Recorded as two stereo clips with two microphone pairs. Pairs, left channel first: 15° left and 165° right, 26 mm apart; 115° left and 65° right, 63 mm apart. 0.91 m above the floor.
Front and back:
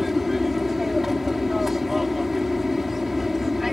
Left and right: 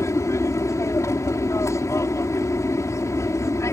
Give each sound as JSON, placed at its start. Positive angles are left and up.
{"t": 0.0, "sound": "an aircraft", "azimuth_deg": 115}